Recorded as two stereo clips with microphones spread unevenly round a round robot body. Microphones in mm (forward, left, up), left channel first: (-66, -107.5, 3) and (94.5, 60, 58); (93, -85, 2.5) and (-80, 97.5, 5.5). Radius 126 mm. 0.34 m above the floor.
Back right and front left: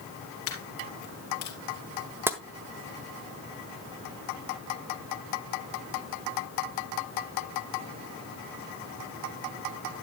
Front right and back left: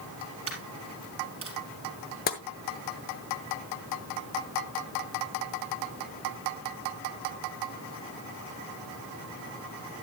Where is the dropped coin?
160° right, 3 m.